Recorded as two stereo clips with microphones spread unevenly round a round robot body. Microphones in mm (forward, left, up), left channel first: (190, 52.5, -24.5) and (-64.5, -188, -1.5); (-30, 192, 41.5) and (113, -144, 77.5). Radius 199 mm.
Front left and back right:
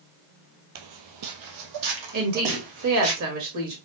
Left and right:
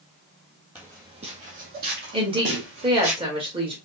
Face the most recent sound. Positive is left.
turn(degrees=-145)